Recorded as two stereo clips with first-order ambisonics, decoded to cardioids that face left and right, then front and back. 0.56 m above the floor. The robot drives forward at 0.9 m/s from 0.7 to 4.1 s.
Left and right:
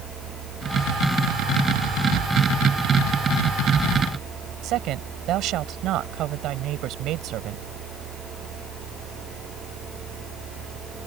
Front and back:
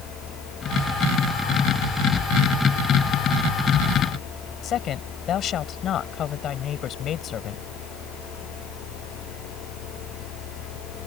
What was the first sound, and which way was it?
A woman speaking, 50° right.